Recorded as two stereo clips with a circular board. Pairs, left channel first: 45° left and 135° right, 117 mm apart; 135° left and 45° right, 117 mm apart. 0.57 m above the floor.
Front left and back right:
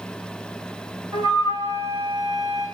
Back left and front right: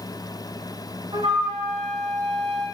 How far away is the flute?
About 6.5 m.